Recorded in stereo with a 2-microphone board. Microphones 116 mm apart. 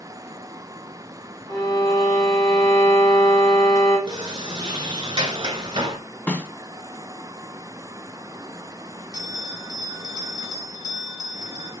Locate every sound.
1.5 s a violin: 30° left (ahead or behind), 3 m
4.1 s a sliding door: 40° right (ahead or behind), 0.5 m
6.3 s a snare drum: 15° left (ahead or behind), 0.6 m
9.1 s a bell: 30° left (ahead or behind), 3 m